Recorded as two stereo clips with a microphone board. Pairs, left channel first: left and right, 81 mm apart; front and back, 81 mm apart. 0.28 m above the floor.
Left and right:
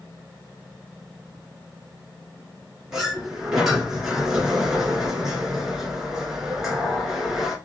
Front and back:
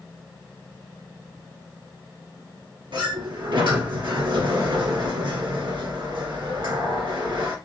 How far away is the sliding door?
About 1.7 m.